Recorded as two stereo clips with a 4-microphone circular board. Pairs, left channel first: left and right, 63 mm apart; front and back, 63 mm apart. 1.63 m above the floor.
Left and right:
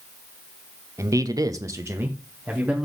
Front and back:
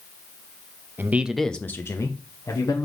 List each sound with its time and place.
1.0 s a man speaking: 125° right, 0.7 m; by 2.9 s 20° right, 1.7 m